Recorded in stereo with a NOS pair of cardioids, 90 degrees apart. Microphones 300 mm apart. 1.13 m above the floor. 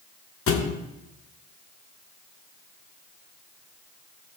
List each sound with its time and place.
0.5 s a thud: 50° left, 1.5 m